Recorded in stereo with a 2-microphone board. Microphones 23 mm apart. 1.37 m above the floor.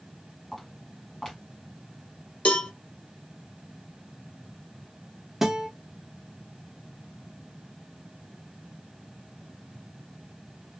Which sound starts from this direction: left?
A cowbell, at 2.5 s.